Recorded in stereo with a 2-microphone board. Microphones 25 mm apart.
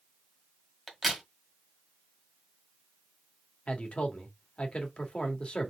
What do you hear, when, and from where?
0.9 s a crack: centre (ahead or behind), 1.8 m
3.7 s a man speaking: 55° left (ahead or behind), 1.6 m